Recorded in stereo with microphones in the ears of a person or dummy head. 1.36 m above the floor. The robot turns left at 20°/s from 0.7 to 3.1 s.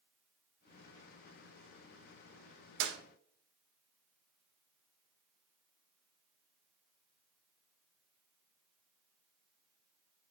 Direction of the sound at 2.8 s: 70° right (ahead or behind).